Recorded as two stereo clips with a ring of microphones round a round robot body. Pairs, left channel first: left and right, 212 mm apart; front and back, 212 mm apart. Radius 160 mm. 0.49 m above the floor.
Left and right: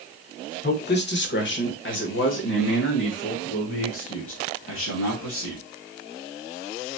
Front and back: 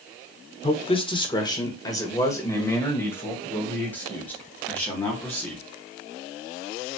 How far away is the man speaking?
About 1.2 m.